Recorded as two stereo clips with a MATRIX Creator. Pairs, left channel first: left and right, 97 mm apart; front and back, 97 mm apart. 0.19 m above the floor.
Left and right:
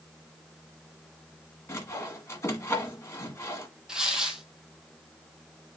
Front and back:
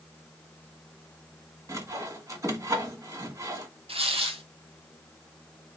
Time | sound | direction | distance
1.7 | sawing | 140° left | 1.3 m
3.9 | tearing paper | 175° right | 1.2 m